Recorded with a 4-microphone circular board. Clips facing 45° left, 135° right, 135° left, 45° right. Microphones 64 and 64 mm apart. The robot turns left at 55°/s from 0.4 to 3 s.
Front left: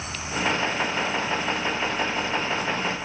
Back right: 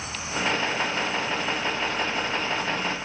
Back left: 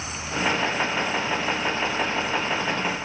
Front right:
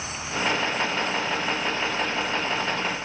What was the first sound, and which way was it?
Only background noise.